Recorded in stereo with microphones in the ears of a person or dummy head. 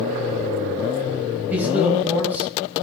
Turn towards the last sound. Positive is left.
turn(degrees=-10)  # may be behind; listen again after turning